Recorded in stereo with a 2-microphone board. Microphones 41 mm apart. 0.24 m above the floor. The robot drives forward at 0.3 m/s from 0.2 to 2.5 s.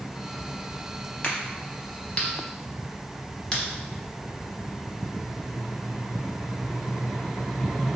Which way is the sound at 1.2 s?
35° left (ahead or behind).